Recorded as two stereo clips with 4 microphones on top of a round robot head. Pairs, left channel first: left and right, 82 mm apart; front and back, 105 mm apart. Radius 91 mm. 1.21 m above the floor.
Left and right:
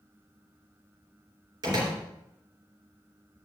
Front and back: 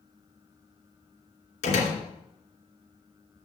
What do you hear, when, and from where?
1.6 s a door slam: 30° right, 2.5 m